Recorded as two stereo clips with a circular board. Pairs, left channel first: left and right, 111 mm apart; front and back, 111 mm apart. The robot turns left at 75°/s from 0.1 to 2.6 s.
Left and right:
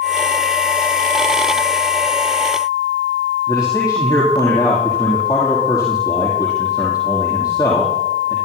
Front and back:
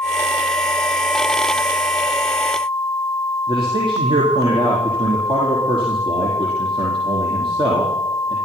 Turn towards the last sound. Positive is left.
turn(degrees=140)